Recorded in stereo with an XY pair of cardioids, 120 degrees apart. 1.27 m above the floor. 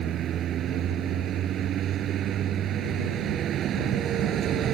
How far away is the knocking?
No knocking in this recording.